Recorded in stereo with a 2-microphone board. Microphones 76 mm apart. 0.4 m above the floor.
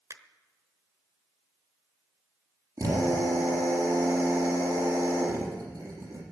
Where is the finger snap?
45° right (ahead or behind), 1.0 m.